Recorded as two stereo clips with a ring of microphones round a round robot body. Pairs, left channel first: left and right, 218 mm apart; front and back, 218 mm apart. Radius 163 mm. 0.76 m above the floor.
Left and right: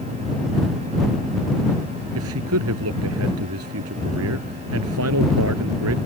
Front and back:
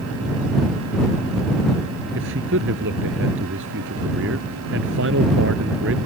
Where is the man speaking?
130° right.